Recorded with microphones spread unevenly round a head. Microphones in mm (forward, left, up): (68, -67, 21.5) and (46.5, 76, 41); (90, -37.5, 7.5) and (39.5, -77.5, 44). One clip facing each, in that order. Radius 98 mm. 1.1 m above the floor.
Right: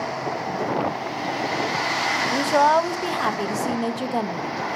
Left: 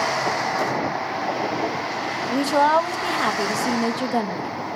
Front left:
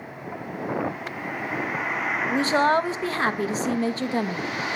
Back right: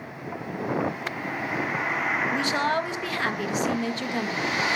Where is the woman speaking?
5° left, 1.3 m.